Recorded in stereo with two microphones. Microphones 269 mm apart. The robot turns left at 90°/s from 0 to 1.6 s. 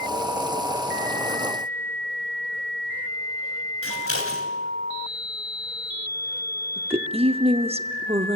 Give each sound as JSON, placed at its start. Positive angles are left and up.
{"t": 3.8, "sound": "scissors", "side_deg": 60, "distance_m": 3.0}
{"t": 6.8, "sound": "a woman speaking", "side_deg": -25, "distance_m": 0.9}